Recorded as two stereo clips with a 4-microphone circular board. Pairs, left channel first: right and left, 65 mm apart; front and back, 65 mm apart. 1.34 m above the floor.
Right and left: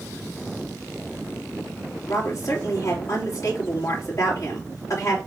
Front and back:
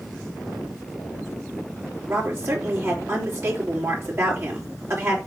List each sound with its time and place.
2.1 s a woman speaking: 130° right, 3.5 m